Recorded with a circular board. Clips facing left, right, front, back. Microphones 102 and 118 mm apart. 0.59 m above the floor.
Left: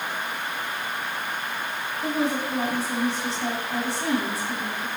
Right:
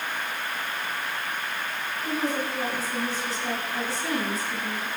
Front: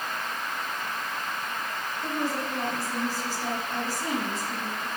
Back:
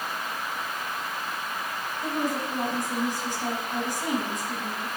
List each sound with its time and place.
2.0 s a woman speaking: 110° left, 5 m